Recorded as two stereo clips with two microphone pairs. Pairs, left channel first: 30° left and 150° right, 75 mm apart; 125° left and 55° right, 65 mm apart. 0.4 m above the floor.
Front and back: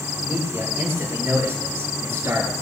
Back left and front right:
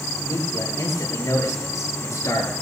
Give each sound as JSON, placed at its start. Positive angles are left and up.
{"t": 0.2, "sound": "a man speaking", "azimuth_deg": 150, "distance_m": 8.5}